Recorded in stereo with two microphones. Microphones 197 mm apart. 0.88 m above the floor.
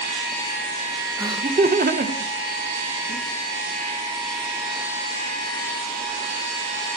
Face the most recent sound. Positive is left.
turn(degrees=-60)  # may be behind; listen again after turning